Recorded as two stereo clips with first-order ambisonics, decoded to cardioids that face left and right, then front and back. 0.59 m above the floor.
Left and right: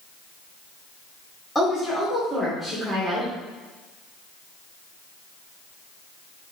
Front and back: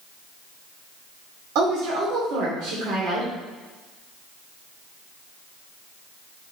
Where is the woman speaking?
175° left, 2.0 m.